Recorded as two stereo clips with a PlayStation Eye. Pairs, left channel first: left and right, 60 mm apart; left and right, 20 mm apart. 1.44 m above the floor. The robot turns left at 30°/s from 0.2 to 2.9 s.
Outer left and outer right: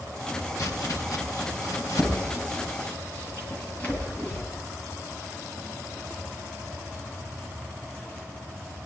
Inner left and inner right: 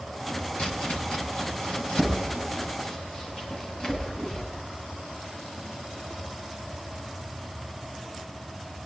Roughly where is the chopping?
Left.